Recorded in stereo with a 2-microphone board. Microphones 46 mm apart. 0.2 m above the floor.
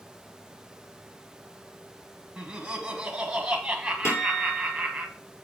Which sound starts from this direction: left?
A guitar, at 4.0 s.